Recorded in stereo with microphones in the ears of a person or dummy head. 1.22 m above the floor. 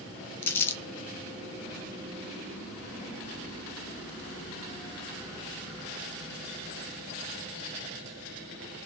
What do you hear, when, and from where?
0.4 s crumpling: 10° left (ahead or behind), 0.7 m